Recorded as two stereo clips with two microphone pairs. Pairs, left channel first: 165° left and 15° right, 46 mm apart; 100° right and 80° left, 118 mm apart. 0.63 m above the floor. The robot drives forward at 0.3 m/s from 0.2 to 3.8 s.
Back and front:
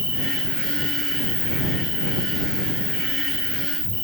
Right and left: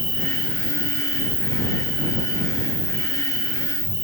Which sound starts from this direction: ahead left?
An insect, at 0.0 s.